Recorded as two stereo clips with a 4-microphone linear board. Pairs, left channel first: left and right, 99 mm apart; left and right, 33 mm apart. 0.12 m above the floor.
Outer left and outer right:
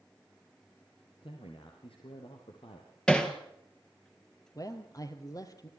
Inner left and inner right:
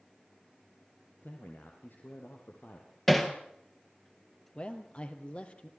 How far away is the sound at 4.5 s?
About 2.5 m.